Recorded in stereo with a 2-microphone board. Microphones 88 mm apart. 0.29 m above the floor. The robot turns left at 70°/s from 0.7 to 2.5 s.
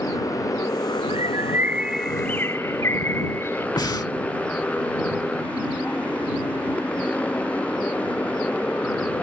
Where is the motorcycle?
140° left; by 9.2 s 15° left.